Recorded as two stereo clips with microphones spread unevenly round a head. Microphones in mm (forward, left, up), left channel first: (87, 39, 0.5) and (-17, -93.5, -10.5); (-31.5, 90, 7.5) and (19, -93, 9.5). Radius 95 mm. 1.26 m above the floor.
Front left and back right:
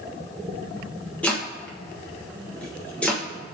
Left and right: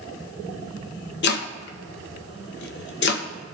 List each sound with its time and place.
1.2 s chopping: 135° left, 0.8 m